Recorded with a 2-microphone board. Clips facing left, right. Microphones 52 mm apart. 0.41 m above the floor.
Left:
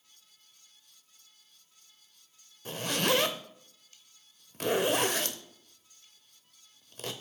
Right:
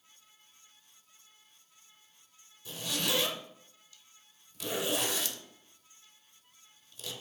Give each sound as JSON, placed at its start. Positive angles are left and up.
{"t": 2.6, "sound": "a zipper", "side_deg": 55, "distance_m": 0.7}